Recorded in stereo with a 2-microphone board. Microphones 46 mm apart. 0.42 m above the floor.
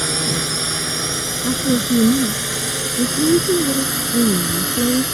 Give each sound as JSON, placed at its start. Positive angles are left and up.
{"t": 0.0, "sound": "a drone", "side_deg": 0}
{"t": 1.4, "sound": "a woman speaking", "side_deg": 75}